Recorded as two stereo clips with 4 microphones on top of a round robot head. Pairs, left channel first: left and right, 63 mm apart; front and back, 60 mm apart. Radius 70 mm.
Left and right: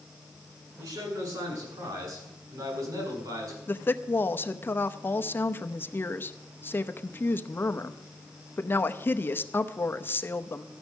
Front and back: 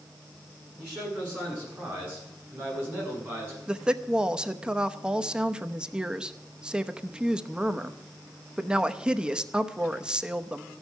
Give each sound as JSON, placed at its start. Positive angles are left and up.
{"t": 0.8, "sound": "a man speaking", "azimuth_deg": -105, "distance_m": 8.0}
{"t": 3.7, "sound": "a woman speaking", "azimuth_deg": 110, "distance_m": 0.9}